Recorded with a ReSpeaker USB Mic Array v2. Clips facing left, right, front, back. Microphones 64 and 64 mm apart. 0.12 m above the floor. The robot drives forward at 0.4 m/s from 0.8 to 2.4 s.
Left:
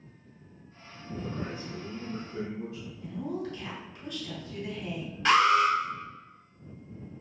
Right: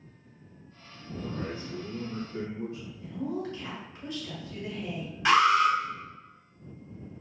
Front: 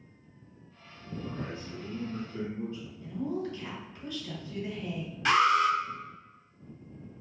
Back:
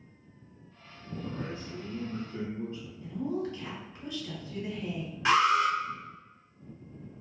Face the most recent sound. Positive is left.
turn(degrees=-160)